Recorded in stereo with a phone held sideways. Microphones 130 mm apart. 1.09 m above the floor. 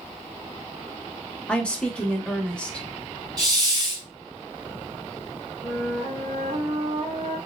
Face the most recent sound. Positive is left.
turn(degrees=-55)  # may be behind; listen again after turning